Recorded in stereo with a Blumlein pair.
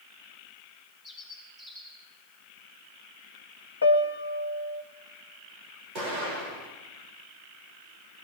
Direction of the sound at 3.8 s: 70° left.